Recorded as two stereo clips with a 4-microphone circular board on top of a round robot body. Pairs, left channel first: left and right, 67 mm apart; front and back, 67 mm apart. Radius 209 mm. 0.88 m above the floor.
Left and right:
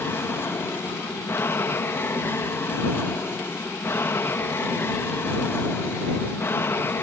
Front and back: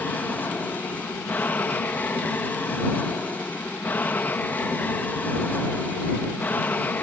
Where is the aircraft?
55° left.